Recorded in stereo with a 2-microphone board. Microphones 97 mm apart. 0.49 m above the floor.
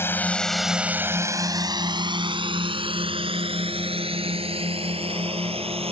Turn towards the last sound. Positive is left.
turn(degrees=-80)